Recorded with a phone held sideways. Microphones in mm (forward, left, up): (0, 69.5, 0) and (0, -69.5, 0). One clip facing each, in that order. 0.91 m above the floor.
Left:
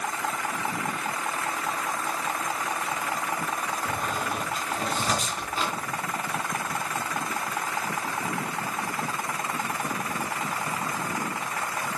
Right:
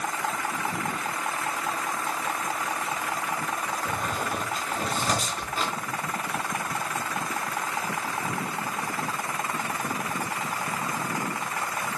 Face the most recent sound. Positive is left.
turn(degrees=0)  # may be behind; listen again after turning